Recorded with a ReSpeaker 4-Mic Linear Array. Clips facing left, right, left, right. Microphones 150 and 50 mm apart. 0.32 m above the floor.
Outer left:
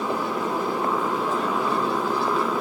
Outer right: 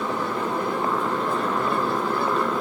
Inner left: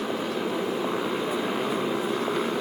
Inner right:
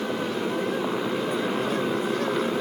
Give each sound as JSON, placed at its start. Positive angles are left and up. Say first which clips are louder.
{"t": 0.0, "sound": "a motorcycle", "louder": "even, inner right 1 dB", "side_deg": 5}